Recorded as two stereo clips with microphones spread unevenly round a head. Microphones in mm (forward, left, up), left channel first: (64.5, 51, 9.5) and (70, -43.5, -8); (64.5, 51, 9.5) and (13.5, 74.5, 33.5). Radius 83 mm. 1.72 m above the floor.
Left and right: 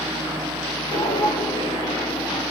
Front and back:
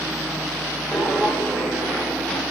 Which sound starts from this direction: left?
Footsteps, at 0.9 s.